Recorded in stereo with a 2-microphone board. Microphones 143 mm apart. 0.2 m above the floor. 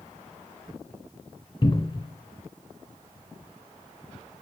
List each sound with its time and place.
1.6 s a cupboard door: 40° left (ahead or behind), 0.7 m